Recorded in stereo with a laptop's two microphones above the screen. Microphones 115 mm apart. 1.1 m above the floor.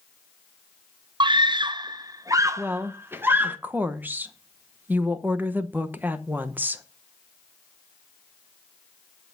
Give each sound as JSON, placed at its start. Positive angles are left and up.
{"t": 1.2, "sound": "a scream", "side_deg": -45, "distance_m": 0.5}
{"t": 2.6, "sound": "a woman speaking", "side_deg": -15, "distance_m": 0.7}